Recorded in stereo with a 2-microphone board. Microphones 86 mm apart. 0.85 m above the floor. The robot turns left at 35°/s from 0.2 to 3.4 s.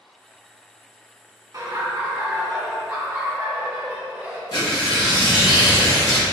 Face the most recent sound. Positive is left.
turn(degrees=60)  # may be behind; listen again after turning